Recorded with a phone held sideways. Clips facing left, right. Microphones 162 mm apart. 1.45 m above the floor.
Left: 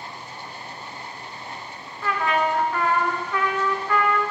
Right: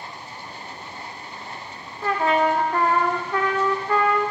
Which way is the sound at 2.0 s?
35° right (ahead or behind).